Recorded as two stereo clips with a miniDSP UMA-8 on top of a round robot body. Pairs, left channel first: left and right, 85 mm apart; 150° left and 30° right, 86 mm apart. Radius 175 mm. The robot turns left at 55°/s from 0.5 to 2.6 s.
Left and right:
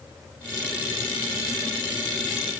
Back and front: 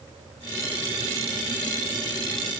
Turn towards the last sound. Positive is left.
No sound to turn to.